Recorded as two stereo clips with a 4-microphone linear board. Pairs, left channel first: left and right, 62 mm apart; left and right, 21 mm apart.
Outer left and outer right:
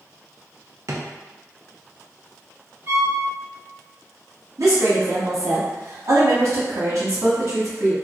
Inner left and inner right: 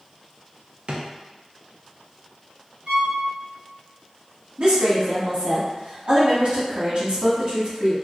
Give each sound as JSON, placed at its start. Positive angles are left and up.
{"t": 0.9, "sound": "a drawer", "side_deg": -55, "distance_m": 0.5}
{"t": 2.9, "sound": "a violin", "side_deg": -60, "distance_m": 1.2}
{"t": 4.6, "sound": "a woman speaking", "side_deg": -60, "distance_m": 1.3}